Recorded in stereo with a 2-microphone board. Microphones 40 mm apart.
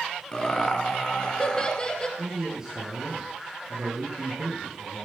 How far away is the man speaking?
About 4.5 m.